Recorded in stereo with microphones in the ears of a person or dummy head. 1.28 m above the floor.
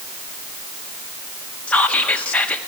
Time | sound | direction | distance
1.7 | whispering | 15° left (ahead or behind) | 1.2 m